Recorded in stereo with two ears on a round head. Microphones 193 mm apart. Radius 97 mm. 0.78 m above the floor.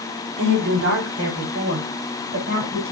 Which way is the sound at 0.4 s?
60° right (ahead or behind).